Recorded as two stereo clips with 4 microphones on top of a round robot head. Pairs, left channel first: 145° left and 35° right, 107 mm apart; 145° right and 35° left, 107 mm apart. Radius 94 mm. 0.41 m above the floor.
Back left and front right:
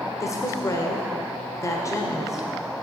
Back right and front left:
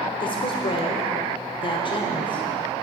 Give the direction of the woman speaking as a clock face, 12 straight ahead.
5 o'clock.